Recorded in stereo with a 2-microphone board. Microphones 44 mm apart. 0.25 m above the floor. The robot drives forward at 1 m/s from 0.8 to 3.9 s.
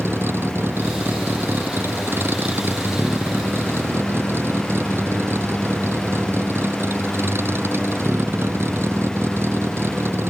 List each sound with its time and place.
0.0 s a vehicle: 70° right (ahead or behind)